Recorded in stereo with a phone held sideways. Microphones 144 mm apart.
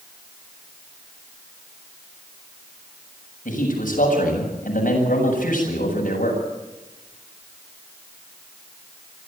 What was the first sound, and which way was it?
A man speaking, 65° left (ahead or behind).